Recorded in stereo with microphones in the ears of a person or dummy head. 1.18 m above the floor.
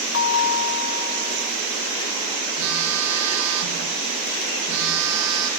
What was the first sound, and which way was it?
A bell, 55° left (ahead or behind).